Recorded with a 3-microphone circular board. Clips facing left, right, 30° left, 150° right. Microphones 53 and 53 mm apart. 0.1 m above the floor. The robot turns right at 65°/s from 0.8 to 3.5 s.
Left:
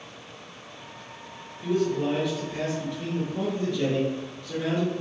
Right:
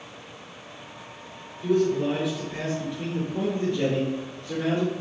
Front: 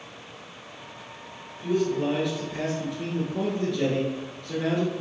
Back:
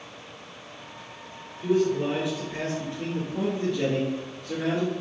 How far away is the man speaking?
About 1.5 m.